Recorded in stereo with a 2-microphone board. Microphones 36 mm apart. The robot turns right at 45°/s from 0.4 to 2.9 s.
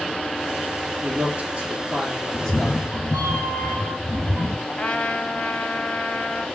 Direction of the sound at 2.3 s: 15° left (ahead or behind).